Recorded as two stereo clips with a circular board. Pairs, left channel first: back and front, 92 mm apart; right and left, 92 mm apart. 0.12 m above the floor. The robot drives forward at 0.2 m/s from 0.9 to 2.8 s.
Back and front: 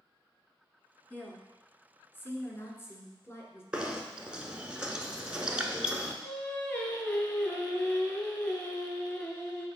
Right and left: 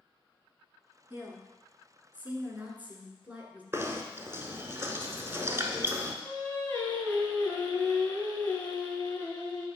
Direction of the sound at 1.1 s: 130° left.